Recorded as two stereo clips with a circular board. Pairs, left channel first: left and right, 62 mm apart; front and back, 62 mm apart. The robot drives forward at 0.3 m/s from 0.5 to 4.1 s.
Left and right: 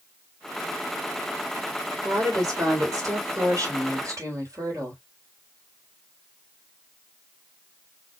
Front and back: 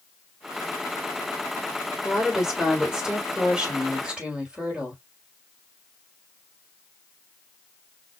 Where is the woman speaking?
95° right, 3 m; by 5.0 s 110° right, 3 m.